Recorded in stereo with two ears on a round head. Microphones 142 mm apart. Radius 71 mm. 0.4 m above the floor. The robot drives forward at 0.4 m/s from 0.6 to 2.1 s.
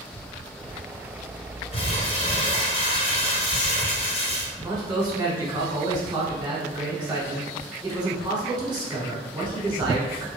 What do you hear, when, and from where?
1.7 s crumpling: 40° left (ahead or behind), 1.6 m; by 4.5 s 35° left (ahead or behind), 1.8 m
4.6 s a man speaking: 15° right (ahead or behind), 1.0 m